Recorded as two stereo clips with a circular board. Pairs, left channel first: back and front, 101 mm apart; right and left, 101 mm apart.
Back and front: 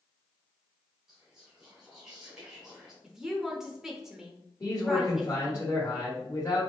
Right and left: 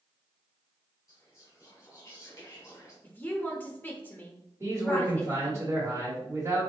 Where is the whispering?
75° right, 1.7 m.